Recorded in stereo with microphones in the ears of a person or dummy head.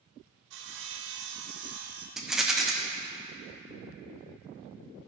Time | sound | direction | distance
0.5 | sawing | 60° right (ahead or behind) | 0.8 m
2.2 | a rattle | 5° left (ahead or behind) | 0.6 m